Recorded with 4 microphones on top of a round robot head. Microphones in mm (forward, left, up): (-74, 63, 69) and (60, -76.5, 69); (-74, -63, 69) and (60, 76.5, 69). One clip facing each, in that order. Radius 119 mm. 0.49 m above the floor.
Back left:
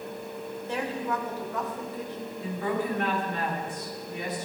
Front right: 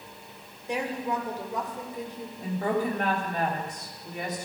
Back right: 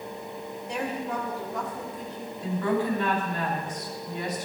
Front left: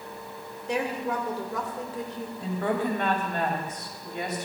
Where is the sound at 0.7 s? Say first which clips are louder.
Front right 1 dB, front left 3 dB; 30° left, 2.5 m.